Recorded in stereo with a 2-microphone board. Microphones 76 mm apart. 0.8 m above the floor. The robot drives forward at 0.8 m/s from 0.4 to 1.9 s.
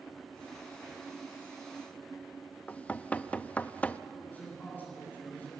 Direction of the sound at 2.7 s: 20° left (ahead or behind).